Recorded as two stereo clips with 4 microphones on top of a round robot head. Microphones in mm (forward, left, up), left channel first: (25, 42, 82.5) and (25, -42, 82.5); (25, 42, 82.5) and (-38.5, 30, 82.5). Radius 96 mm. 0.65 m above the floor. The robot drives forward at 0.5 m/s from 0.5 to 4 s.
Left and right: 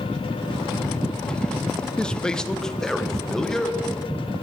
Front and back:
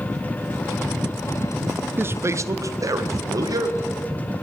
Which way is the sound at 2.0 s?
165° left.